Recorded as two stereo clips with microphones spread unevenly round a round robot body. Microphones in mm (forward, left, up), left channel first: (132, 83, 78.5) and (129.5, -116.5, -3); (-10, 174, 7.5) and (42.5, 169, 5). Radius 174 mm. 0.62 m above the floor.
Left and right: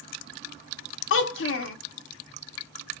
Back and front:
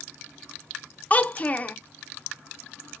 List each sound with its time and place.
1.1 s a child speaking: 120° left, 0.6 m